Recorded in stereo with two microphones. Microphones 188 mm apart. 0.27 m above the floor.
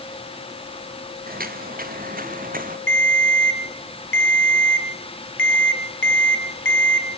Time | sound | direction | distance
1.3 | footsteps | 45° right (ahead or behind) | 3 m
2.9 | a ringtone | 80° left | 2.5 m